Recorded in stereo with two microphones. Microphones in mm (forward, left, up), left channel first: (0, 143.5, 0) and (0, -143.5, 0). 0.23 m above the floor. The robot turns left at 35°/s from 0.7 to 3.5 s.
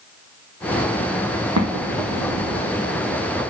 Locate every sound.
1.6 s an explosion: 70° right (ahead or behind), 1.7 m; by 2.6 s 75° right (ahead or behind), 1.7 m